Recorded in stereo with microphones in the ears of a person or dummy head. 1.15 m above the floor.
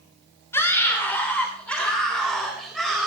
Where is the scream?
15° left (ahead or behind), 3 m; by 3.1 s centre (ahead or behind), 5 m.